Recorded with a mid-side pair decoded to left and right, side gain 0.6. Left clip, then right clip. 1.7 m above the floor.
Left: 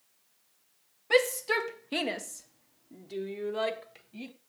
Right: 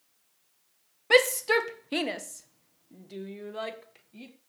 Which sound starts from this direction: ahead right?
A shout, at 1.1 s.